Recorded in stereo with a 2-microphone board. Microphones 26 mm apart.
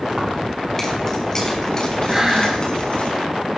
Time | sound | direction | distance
0.1 | keys jangling | 10° left (ahead or behind) | 5.5 m
2.1 | breathing | 15° right (ahead or behind) | 8 m